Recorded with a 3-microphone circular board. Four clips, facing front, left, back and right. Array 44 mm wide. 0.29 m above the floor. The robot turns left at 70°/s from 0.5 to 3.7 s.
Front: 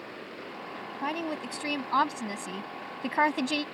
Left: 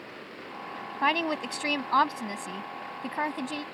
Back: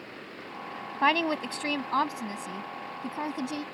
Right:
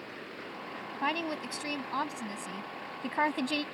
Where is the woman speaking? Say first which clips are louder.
Left 6 dB, back 8 dB; 145° left; by 3.6 s 40° right.